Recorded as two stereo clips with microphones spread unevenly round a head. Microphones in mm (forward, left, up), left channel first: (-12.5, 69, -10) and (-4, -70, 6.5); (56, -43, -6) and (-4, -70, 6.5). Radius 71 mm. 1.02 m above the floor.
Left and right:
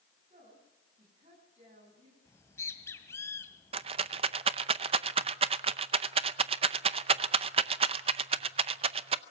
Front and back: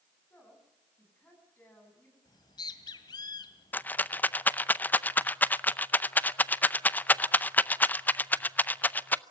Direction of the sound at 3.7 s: 35° right.